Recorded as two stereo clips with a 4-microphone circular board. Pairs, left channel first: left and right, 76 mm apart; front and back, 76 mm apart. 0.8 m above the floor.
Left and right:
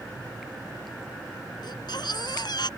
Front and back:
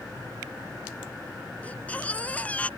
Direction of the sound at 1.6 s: 70° left.